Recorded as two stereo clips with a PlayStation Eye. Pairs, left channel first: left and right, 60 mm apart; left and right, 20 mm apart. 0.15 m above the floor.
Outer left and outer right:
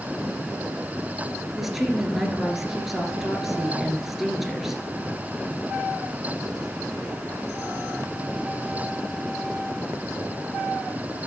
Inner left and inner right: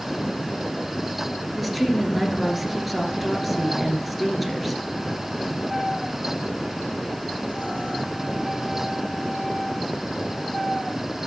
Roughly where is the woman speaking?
Centre.